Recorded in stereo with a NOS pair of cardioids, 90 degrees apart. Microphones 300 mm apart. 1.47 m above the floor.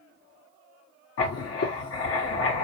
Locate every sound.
1.2 s writing: 60° left, 1.6 m